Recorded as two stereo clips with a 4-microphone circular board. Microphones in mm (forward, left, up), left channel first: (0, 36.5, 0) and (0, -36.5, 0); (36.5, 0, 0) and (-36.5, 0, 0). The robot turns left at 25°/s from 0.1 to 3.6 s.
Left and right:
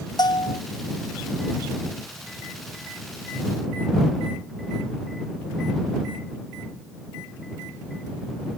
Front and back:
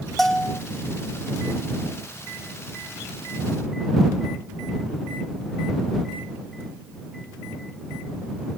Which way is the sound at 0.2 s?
90° left.